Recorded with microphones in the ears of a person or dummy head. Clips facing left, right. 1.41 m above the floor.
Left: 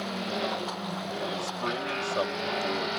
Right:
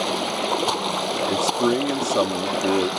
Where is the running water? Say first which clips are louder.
Right 7 dB; 80° right.